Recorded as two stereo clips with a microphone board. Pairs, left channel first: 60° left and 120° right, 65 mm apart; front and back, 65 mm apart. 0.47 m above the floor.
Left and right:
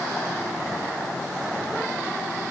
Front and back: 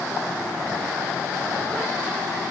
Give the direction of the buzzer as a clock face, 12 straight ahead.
No buzzer in this recording.